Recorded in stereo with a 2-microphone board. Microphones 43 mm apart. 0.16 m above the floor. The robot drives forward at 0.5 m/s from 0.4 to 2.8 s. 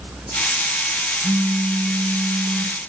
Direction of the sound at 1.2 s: 60° right (ahead or behind).